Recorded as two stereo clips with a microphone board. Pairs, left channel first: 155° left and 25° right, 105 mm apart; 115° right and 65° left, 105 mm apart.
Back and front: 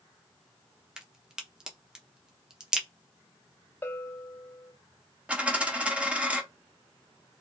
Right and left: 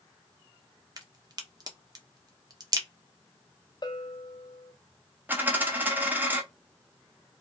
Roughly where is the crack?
Ahead left.